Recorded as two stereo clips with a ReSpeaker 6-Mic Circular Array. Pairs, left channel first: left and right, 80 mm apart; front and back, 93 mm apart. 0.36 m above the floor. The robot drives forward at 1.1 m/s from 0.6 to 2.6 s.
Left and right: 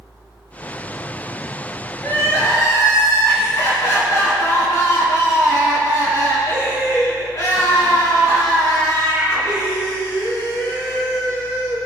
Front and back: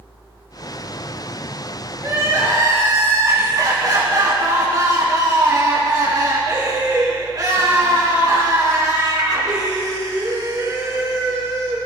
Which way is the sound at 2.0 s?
125° left.